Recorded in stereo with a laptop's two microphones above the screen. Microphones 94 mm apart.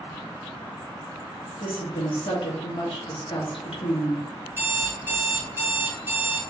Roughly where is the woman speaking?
Left.